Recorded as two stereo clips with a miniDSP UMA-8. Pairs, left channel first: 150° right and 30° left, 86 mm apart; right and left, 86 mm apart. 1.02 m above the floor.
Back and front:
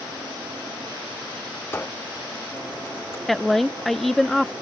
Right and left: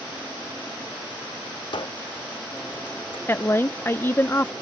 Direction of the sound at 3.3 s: 65° right.